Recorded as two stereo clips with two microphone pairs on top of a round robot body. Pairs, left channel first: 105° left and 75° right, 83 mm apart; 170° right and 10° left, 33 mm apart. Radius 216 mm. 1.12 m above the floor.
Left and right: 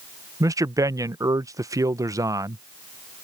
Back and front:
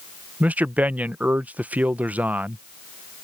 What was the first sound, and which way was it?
A man speaking, 25° right.